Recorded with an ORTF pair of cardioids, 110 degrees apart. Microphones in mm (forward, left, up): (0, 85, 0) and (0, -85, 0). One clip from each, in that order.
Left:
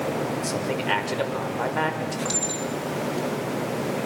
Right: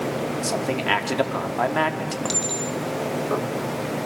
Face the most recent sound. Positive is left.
turn(degrees=-30)